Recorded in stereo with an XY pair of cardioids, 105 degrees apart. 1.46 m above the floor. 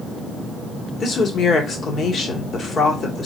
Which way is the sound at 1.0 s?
50° left.